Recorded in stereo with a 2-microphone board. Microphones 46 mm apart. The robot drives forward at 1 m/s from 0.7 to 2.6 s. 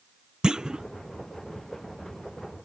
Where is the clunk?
20° right (ahead or behind); by 0.8 s 15° right (ahead or behind).